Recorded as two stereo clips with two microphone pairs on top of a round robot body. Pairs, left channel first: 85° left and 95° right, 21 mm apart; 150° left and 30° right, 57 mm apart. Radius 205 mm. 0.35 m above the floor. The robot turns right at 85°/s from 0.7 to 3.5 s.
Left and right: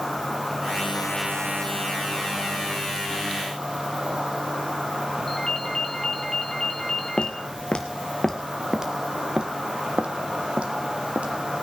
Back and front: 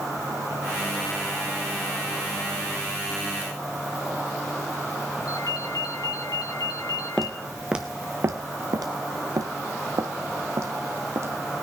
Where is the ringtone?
155° left, 3 m.